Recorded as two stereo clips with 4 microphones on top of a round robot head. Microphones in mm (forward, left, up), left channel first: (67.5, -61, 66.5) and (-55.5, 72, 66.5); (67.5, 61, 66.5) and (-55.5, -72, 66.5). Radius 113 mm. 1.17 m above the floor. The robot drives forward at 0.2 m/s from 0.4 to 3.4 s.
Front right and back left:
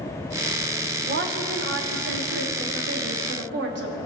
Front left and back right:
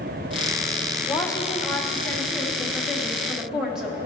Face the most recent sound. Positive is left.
turn(degrees=140)